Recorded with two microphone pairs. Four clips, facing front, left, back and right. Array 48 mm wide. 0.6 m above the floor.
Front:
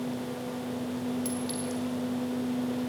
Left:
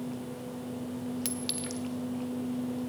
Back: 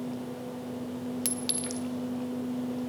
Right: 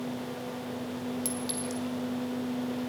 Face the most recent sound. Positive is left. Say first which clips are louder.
# right 2 dB, front 2 dB
turn(degrees=140)